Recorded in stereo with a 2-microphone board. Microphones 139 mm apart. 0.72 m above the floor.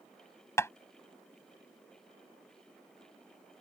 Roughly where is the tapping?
Centre.